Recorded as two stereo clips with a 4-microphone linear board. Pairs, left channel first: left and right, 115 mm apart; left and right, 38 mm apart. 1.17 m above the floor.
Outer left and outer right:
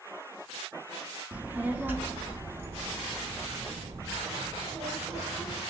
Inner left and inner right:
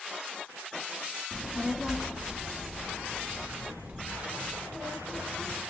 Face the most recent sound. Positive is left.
turn(degrees=-20)  # may be behind; listen again after turning